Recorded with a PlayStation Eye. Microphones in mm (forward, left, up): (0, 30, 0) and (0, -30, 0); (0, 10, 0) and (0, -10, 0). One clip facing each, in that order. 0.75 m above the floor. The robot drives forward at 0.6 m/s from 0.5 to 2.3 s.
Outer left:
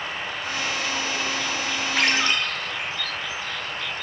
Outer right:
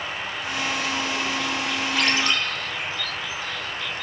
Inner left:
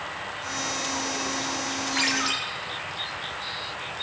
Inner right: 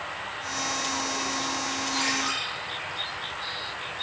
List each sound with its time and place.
2.0 s a ringtone: 35° left (ahead or behind), 2 m; by 2.4 s 30° left (ahead or behind), 2 m